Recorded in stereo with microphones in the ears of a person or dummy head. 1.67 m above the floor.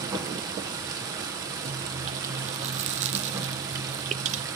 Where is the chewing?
40° right (ahead or behind), 0.7 m.